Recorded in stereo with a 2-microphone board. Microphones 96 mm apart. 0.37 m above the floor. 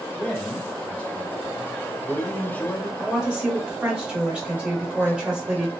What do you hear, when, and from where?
0.1 s a man speaking: 15° left (ahead or behind), 0.9 m
3.0 s a woman speaking: 10° right (ahead or behind), 1.1 m